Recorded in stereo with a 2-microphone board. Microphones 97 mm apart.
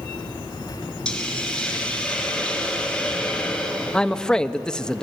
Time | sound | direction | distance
1.1 | a hiss | 10° left (ahead or behind) | 3.5 m
3.9 | a man speaking | 10° left (ahead or behind) | 0.7 m